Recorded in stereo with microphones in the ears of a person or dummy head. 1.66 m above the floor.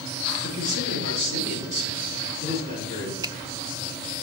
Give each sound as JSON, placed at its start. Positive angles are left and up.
{"t": 0.4, "sound": "a man speaking", "side_deg": -70, "distance_m": 6.0}
{"t": 3.2, "sound": "a finger snap", "side_deg": -25, "distance_m": 0.6}